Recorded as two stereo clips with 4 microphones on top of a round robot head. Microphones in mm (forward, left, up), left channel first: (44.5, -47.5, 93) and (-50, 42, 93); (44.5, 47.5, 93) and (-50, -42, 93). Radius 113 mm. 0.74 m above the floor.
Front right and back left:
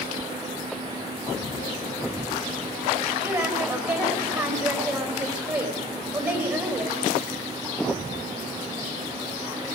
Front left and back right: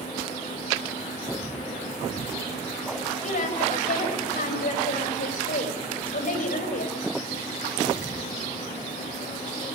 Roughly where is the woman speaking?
Left.